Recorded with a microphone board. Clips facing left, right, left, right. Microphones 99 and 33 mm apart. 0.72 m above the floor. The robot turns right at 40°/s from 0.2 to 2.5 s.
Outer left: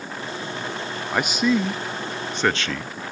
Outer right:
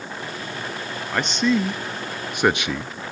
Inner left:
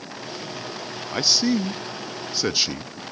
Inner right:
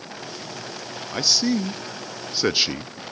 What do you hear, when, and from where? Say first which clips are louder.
1.1 s a man speaking: even, inner left 1 dB; 10° left (ahead or behind), 0.6 m; by 2.9 s 15° right (ahead or behind), 0.6 m